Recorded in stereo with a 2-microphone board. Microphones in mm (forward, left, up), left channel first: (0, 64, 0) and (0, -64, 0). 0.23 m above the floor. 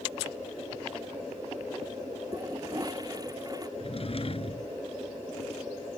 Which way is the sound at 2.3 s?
30° right (ahead or behind).